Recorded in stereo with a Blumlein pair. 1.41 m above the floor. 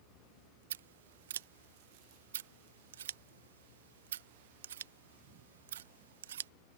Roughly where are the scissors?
Ahead right.